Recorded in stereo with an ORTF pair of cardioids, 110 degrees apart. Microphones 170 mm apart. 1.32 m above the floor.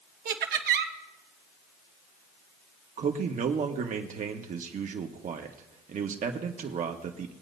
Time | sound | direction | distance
0.2 | laughter | 65° right | 1.7 m
3.0 | a man speaking | 45° right | 1.6 m